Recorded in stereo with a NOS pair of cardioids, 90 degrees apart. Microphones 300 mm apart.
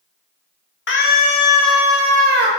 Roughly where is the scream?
Ahead left.